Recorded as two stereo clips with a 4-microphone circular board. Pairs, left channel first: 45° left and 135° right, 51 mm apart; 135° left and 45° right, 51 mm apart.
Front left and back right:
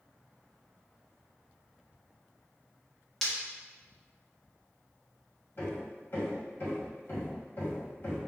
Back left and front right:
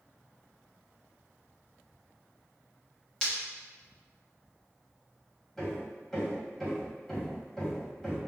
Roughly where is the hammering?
Ahead left.